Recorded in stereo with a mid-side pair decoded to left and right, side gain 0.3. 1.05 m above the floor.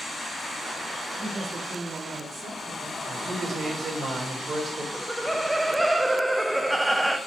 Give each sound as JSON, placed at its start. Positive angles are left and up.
{"t": 1.2, "sound": "a woman speaking", "azimuth_deg": -60, "distance_m": 2.0}
{"t": 3.0, "sound": "a man speaking", "azimuth_deg": -65, "distance_m": 3.0}
{"t": 4.9, "sound": "laughter", "azimuth_deg": -10, "distance_m": 0.8}